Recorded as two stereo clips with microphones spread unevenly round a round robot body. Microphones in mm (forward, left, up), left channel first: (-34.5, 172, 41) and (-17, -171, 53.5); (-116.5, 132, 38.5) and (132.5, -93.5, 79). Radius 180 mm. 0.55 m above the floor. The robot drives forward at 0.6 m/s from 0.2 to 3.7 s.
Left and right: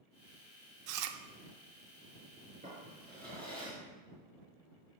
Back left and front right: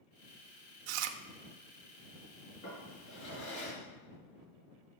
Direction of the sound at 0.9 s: 40° right.